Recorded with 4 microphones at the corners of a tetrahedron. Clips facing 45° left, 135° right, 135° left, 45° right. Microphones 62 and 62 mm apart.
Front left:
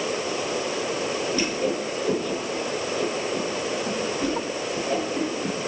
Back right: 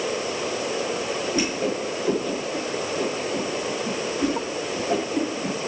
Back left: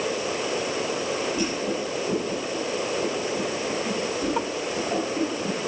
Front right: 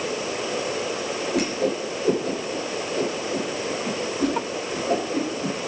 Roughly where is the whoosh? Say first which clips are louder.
Back right 1 dB, front right 3 dB; ahead right.